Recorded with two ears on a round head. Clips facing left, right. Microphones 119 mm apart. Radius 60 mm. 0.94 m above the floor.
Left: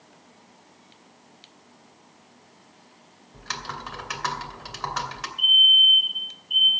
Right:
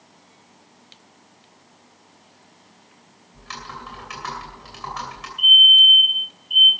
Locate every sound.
3.3 s typing on a keyboard: 65° left (ahead or behind), 2.5 m
5.4 s a fire alarm: 5° right (ahead or behind), 9 m